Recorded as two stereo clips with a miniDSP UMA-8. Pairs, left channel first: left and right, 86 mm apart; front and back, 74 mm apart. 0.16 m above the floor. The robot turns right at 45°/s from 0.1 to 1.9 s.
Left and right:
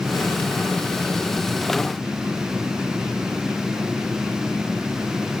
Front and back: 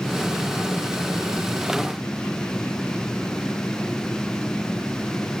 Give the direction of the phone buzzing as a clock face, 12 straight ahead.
I don't hear a phone buzzing.